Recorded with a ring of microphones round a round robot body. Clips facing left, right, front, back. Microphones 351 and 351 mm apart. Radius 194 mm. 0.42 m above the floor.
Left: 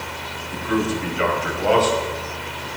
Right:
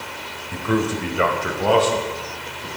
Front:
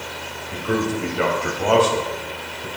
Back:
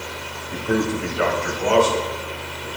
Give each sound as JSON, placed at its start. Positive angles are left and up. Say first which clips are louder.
{"t": 0.5, "sound": "a man speaking", "louder": "right 1 dB, back 1 dB", "azimuth_deg": -85, "distance_m": 1.7}